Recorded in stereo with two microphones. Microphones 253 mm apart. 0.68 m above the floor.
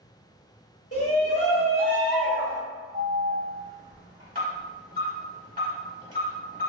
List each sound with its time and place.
0.9 s a shout: 65° left (ahead or behind), 1.5 m; by 2.6 s 20° left (ahead or behind), 0.9 m
2.9 s an alarm: 35° right (ahead or behind), 1.3 m